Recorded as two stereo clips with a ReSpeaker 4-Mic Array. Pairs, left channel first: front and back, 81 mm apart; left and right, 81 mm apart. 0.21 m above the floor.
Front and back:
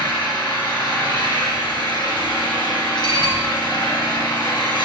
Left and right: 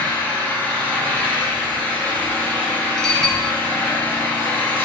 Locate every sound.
0.0 s an engine running: 20° left, 2.5 m
3.0 s dishes clattering: 5° left, 2.5 m